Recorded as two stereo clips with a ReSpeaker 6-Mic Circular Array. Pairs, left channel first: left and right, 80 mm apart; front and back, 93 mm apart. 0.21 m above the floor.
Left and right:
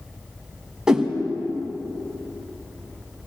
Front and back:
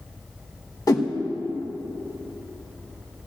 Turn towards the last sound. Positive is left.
turn(degrees=-15)